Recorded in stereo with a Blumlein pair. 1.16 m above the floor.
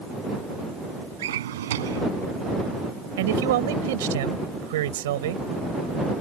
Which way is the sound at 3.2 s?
55° right.